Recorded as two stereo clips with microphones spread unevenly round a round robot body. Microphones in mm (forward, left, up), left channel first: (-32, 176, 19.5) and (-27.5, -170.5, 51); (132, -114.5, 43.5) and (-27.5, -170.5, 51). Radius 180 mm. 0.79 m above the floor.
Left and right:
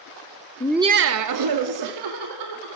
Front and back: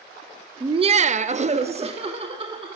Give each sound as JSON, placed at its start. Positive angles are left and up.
{"t": 0.6, "sound": "laughter", "azimuth_deg": 135, "distance_m": 0.7}